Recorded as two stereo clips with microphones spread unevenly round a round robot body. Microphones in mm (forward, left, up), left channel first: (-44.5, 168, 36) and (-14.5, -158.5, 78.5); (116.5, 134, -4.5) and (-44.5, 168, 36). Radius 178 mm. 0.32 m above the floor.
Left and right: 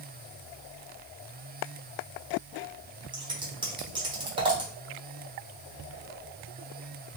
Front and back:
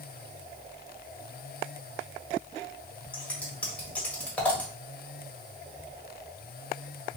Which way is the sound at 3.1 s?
15° right.